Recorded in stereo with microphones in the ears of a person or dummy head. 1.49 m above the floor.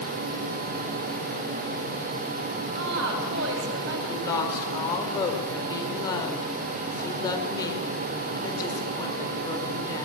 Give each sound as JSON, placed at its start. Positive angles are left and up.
{"t": 2.8, "sound": "a woman speaking", "side_deg": -65, "distance_m": 7.0}
{"t": 4.1, "sound": "a woman speaking", "side_deg": 25, "distance_m": 5.0}